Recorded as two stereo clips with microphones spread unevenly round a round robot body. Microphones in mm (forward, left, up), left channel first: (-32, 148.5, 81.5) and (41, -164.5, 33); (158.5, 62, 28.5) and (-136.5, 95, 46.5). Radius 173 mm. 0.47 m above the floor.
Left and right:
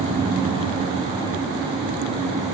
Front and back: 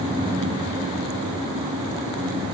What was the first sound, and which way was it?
Only background noise.